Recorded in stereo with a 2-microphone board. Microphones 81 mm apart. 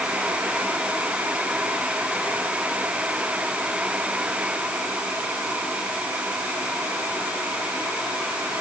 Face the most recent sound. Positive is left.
No sound to turn to.